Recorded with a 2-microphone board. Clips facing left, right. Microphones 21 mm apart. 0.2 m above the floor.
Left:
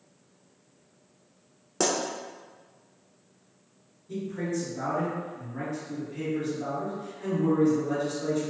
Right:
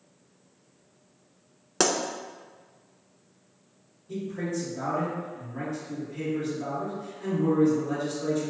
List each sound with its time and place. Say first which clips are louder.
1.8 s a pop: right 2 dB; 55° right (ahead or behind), 0.7 m
4.1 s a man speaking: even; centre (ahead or behind), 1.6 m